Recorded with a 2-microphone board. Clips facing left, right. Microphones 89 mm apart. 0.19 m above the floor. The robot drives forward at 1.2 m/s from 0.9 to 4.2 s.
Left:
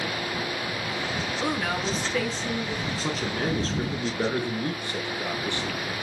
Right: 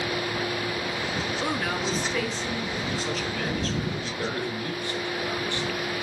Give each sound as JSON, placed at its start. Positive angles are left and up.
{"t": 1.4, "sound": "a woman speaking", "side_deg": 0, "distance_m": 1.2}
{"t": 3.0, "sound": "a man speaking", "side_deg": 40, "distance_m": 3.5}